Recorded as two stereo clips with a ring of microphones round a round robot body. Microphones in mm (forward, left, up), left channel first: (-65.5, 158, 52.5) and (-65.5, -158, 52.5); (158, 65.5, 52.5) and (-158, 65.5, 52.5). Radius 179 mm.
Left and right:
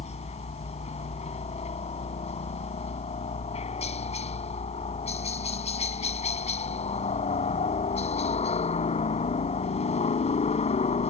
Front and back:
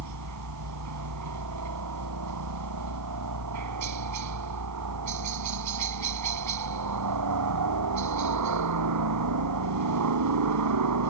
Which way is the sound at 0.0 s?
160° left.